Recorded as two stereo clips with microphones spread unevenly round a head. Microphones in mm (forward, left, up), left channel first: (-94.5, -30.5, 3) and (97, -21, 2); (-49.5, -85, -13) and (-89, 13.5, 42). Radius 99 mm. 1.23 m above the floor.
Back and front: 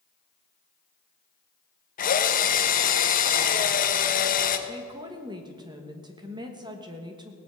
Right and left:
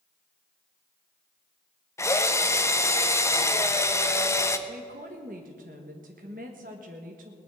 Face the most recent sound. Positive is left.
turn(degrees=75)